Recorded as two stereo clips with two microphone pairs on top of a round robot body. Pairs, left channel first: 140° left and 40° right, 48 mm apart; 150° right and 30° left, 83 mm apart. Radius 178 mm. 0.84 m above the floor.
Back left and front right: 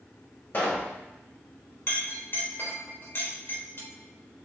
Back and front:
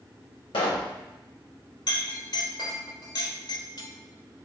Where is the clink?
Straight behind, 3.5 m.